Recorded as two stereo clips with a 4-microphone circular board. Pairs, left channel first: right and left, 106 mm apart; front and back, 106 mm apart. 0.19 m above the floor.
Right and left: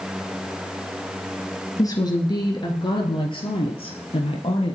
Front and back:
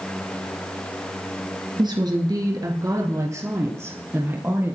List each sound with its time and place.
1.8 s a woman speaking: 140° right, 2 m; by 4.8 s 110° right, 4 m